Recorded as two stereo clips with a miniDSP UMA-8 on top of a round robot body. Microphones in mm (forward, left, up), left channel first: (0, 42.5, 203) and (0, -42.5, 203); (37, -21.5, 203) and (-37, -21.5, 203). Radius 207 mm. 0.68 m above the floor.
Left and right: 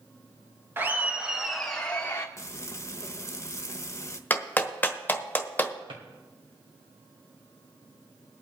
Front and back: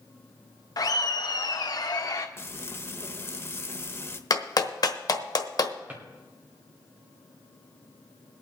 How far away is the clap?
About 1.2 m.